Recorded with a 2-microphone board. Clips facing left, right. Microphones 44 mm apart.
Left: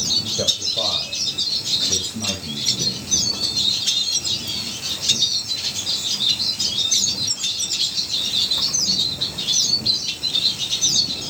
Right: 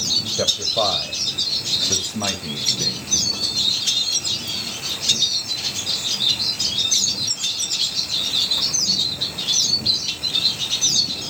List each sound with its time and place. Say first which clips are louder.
0.4 s a man speaking: right 5 dB; 50° right (ahead or behind), 1.6 m; by 3.2 s 70° right (ahead or behind), 3 m